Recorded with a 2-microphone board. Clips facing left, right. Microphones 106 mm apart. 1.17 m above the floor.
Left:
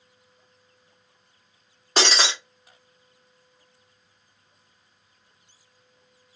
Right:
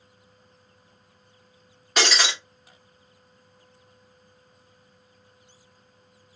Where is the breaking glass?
30° left (ahead or behind), 1.3 m.